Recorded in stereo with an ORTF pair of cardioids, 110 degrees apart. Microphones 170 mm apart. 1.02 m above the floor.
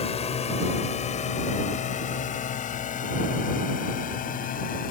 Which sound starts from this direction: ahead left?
A drone, at 0.0 s.